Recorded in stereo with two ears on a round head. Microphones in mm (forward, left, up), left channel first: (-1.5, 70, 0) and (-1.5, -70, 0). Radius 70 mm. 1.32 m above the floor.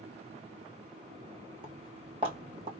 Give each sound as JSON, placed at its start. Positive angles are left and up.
{"t": 1.6, "sound": "footsteps", "side_deg": -35, "distance_m": 2.5}